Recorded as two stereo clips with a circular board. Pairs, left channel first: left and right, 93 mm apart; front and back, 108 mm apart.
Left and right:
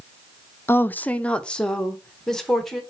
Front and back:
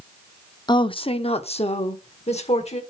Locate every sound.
0.7 s a woman speaking: 35° left, 0.6 m; by 2.8 s 5° left, 2 m